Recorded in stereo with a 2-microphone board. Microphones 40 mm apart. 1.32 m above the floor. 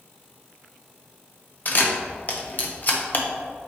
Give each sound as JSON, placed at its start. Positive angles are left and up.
{"t": 1.6, "sound": "a camera shutter", "side_deg": 45, "distance_m": 1.0}